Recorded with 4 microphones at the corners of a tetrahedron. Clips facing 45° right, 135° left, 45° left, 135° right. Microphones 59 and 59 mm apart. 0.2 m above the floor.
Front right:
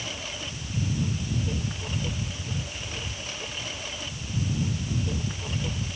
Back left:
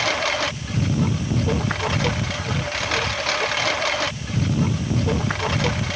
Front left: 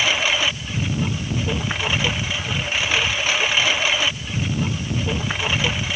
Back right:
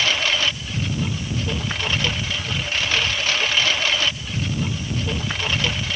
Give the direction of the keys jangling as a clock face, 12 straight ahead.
No keys jangling in this recording.